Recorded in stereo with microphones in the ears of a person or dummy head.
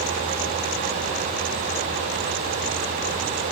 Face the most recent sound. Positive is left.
No sound to turn to.